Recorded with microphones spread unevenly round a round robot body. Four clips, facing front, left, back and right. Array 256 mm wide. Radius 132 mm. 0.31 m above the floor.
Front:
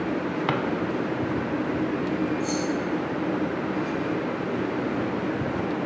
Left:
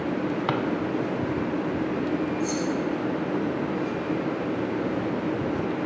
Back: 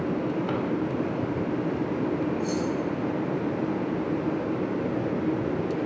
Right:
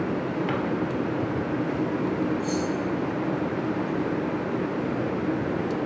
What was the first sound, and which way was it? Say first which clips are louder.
A drawer: left 3 dB, front 2 dB; 30° left.